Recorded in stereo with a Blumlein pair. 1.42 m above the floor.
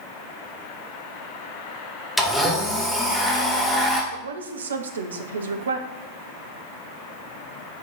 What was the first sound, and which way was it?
A blender, straight ahead.